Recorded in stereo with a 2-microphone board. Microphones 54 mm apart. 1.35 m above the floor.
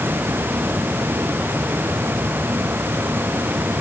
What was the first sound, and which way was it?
Only background noise.